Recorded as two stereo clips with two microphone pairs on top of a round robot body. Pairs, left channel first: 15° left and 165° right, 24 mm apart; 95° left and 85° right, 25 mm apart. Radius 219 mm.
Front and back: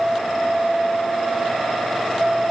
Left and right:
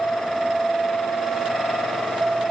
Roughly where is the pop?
No pop in this recording.